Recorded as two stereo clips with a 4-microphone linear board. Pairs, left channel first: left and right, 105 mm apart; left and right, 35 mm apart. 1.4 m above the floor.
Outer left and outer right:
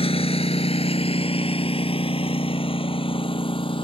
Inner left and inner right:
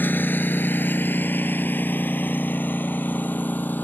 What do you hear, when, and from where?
0.0 s a lawn mower: 70° left (ahead or behind); by 3.9 s 55° left (ahead or behind)